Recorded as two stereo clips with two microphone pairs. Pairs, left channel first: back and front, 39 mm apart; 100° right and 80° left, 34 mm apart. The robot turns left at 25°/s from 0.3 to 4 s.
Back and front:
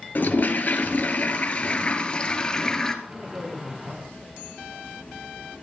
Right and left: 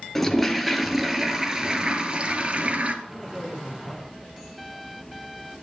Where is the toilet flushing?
170° left, 1.4 m; by 3.0 s 105° left, 1.4 m.